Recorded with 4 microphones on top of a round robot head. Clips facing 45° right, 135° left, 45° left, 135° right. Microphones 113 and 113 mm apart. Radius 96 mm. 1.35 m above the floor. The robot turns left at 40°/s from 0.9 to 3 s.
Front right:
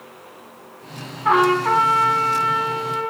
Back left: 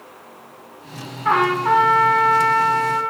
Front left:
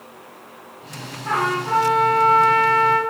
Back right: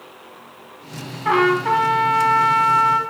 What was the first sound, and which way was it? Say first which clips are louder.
A trumpet: front right 1 dB, back right 5 dB; 130° right.